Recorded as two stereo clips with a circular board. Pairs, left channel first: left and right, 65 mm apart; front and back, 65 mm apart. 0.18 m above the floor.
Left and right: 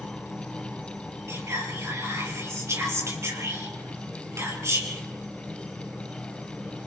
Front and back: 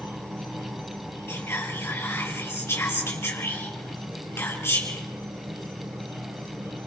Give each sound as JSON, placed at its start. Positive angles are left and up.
{"t": 0.0, "sound": "an insect", "azimuth_deg": -170, "distance_m": 7.0}
{"t": 1.3, "sound": "whispering", "azimuth_deg": -50, "distance_m": 4.5}